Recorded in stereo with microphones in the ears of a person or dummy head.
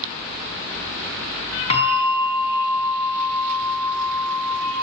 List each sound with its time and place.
1.7 s a bell: 35° left (ahead or behind), 3.5 m